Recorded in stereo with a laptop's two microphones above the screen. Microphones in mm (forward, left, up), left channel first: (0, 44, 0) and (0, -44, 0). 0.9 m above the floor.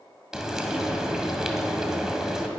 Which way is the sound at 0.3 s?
5° right (ahead or behind).